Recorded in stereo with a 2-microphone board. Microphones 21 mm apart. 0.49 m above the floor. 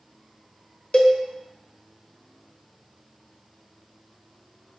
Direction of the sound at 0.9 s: 45° left (ahead or behind).